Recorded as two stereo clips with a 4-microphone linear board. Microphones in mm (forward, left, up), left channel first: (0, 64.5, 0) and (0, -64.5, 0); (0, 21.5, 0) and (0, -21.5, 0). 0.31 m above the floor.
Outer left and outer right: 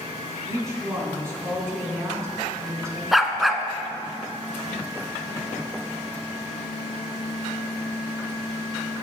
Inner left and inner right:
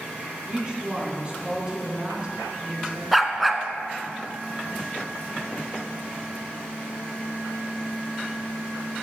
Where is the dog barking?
Centre (ahead or behind), 0.8 m.